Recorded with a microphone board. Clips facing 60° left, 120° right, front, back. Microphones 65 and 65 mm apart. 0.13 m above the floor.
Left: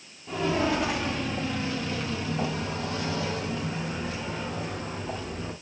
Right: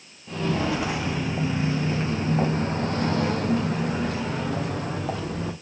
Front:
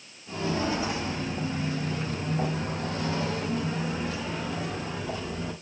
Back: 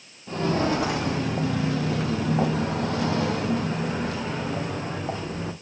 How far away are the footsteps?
About 1.7 m.